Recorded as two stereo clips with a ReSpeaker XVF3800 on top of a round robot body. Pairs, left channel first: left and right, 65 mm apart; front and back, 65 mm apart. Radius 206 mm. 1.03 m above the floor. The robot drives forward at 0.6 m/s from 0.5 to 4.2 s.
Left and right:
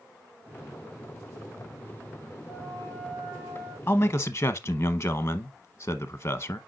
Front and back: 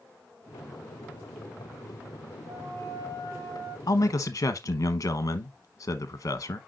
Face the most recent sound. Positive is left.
turn(degrees=40)